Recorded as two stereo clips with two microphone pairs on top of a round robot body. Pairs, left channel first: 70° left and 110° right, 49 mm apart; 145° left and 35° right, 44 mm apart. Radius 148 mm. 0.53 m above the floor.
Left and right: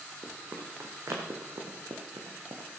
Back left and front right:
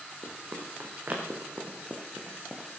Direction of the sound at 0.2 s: 65° right.